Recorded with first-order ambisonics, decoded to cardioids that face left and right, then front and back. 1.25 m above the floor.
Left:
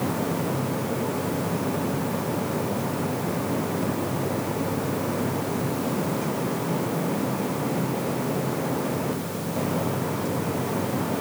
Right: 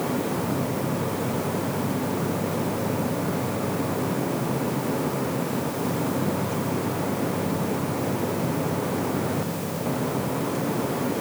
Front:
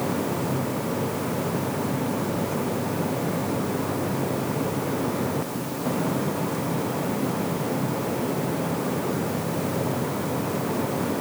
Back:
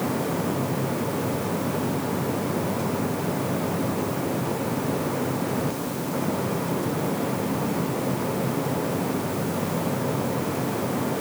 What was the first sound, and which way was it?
Only background noise.